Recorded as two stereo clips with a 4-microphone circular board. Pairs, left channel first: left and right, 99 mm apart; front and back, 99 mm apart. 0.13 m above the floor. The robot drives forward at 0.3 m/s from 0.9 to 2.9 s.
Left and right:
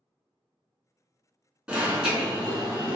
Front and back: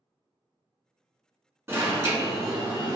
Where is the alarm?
155° right, 0.9 m; by 3.0 s 170° right, 1.1 m.